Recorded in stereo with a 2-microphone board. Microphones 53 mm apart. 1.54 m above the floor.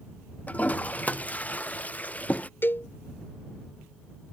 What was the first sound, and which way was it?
A toilet flushing, 30° left (ahead or behind).